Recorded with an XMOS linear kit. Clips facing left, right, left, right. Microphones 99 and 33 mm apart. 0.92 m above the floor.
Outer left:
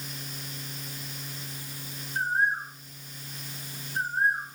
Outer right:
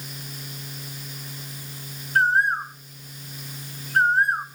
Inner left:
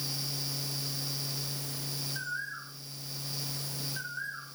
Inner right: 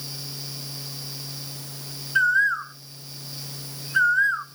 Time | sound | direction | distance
2.1 | a bird | 65° right (ahead or behind) | 0.6 m